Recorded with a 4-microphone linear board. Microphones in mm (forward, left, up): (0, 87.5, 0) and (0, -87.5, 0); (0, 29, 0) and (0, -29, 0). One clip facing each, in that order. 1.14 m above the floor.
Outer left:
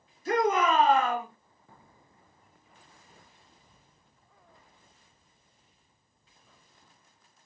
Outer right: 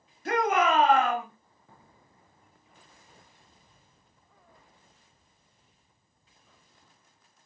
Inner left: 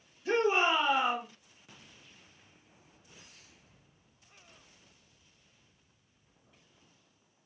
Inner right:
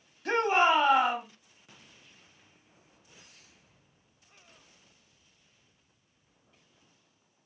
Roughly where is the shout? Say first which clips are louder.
Even, inner right 3 dB; right.